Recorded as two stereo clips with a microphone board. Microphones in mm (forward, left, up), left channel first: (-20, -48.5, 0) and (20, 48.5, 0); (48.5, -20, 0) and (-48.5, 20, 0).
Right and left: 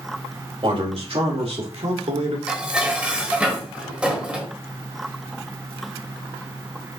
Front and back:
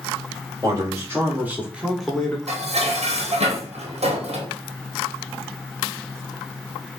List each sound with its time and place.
0.6 s a man speaking: 100° left, 2.5 m; by 2.4 s 60° left, 1.4 m
2.5 s dishes clattering: 150° left, 1.3 m